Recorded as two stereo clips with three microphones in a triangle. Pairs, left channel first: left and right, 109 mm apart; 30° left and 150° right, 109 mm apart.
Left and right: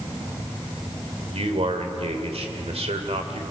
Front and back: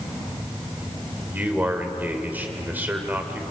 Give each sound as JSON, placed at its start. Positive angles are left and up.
{"t": 1.3, "sound": "a man speaking", "azimuth_deg": -75, "distance_m": 2.0}